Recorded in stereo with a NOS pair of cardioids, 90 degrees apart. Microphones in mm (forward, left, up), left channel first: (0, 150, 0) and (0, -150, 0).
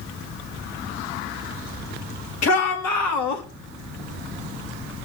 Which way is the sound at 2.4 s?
55° left.